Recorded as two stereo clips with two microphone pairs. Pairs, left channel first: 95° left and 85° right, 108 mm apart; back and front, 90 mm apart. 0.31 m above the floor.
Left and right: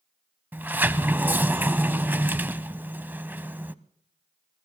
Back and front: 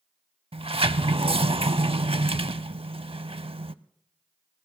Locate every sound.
0.5 s a sliding door: 15° right, 0.5 m